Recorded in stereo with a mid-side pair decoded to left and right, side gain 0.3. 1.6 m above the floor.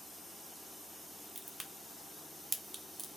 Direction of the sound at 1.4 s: 45° right.